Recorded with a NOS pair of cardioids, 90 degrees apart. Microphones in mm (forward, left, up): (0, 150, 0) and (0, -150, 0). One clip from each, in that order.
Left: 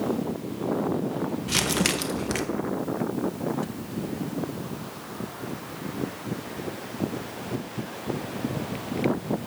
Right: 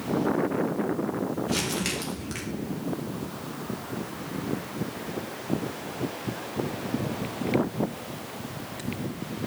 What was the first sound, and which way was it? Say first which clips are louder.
Crumpling: left 8 dB; 50° left.